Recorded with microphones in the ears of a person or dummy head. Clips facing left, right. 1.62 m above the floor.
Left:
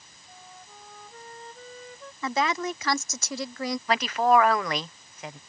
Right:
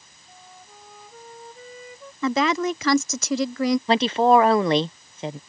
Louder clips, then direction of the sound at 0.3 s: Right 1 dB; 5° right (ahead or behind).